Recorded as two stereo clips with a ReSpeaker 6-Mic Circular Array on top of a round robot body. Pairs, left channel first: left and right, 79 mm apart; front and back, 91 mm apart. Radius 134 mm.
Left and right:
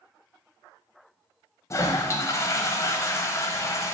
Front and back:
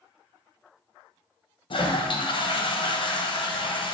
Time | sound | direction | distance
1.7 | a toilet flushing | 35° left | 1.2 m